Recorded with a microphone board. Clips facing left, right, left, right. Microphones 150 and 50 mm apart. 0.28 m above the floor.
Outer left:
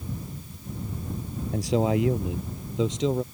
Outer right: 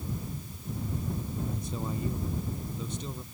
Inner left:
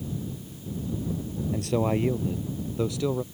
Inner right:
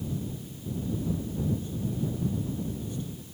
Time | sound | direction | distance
1.5 | a man speaking | 75° left (ahead or behind) | ?